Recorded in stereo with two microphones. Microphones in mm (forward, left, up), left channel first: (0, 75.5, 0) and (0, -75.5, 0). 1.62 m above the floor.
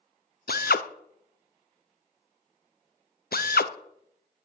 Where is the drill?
80° left, 0.7 m.